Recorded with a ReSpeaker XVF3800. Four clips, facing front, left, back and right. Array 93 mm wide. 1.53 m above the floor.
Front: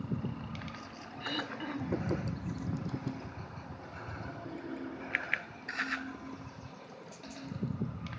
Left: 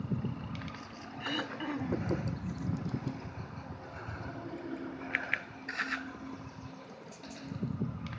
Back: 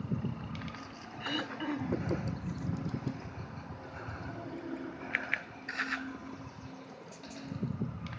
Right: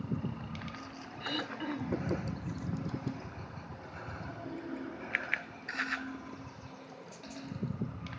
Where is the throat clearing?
125° left, 1.0 m.